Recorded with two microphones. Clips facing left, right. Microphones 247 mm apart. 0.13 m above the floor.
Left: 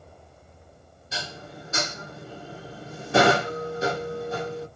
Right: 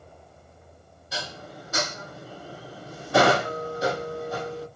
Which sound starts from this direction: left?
Dishes clattering, at 1.1 s.